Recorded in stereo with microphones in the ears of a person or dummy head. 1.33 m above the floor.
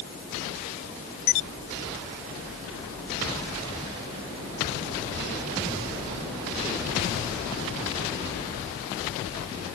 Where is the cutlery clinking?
No cutlery clinking in this recording.